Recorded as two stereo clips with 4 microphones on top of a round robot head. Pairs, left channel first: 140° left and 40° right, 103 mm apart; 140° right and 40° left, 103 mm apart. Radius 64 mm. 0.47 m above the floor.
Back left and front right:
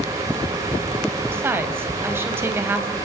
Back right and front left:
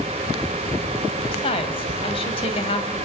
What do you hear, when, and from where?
1.3 s a woman speaking: 110° right, 2.5 m